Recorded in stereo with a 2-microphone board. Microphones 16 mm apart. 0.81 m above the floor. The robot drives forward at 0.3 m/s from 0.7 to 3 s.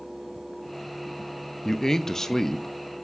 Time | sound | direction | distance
1.6 | a man speaking | 40° left (ahead or behind) | 0.6 m